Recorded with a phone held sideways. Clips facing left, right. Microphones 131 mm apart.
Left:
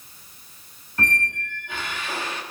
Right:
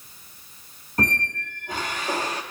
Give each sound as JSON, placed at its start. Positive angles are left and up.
{"t": 1.0, "sound": "a squeak", "side_deg": -40, "distance_m": 1.0}